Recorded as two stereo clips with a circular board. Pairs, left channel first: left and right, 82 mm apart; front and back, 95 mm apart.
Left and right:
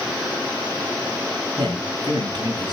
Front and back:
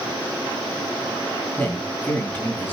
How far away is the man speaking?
About 4 m.